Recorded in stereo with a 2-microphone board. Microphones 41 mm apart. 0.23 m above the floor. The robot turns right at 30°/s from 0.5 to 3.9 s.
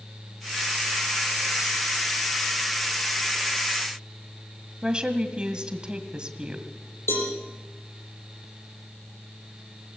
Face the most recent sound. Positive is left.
turn(degrees=75)  # may be behind; listen again after turning